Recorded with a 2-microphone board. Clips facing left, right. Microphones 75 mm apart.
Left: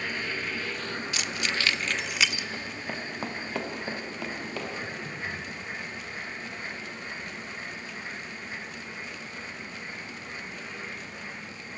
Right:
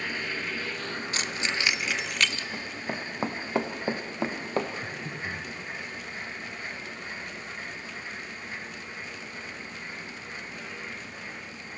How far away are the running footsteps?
About 1.7 m.